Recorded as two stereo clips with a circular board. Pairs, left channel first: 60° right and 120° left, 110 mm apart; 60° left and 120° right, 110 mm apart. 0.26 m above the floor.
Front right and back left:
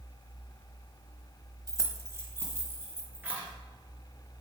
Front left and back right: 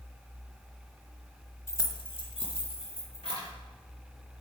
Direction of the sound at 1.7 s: 105° left.